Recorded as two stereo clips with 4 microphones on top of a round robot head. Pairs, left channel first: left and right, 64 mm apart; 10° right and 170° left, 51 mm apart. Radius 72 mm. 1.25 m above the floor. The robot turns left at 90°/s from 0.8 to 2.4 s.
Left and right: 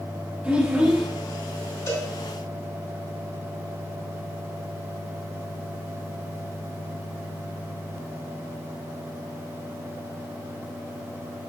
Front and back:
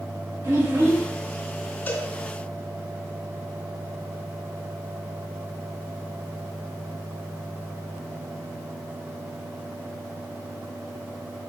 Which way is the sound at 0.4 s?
160° right.